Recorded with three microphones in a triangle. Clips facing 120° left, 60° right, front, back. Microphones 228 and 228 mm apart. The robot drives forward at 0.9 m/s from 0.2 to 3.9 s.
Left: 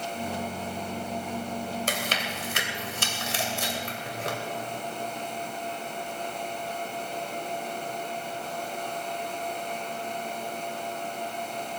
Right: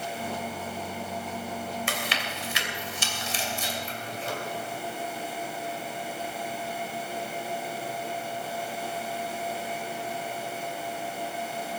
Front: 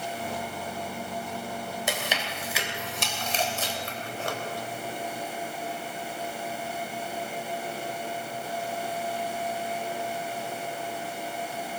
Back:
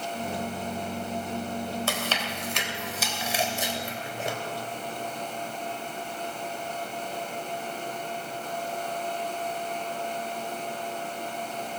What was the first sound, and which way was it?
Chewing, 75° left.